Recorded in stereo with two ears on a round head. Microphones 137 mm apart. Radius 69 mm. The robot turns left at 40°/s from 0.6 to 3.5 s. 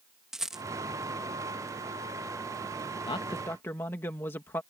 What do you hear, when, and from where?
0.3 s a rattle: 5° right (ahead or behind)
3.0 s a man speaking: 30° left (ahead or behind); by 4.6 s 15° left (ahead or behind)